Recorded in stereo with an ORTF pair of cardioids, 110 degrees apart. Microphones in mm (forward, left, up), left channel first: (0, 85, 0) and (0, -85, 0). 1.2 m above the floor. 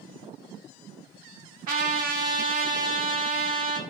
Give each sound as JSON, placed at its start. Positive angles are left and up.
{"t": 1.7, "sound": "a trumpet", "azimuth_deg": -65, "distance_m": 1.4}